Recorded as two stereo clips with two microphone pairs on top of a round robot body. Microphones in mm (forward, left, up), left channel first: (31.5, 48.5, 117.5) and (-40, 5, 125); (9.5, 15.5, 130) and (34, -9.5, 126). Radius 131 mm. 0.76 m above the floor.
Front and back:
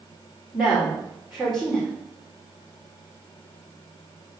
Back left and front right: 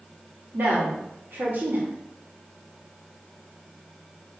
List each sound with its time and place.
0.5 s a woman speaking: 65° right, 2.5 m